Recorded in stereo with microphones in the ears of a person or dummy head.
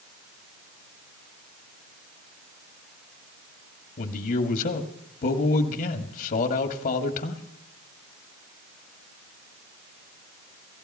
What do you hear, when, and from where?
4.0 s a man speaking: 40° left (ahead or behind), 1.8 m